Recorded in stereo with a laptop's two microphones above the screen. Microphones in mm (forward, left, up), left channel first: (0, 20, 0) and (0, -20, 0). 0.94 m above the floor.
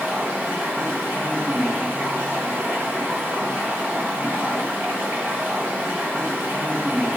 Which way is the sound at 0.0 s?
60° right (ahead or behind).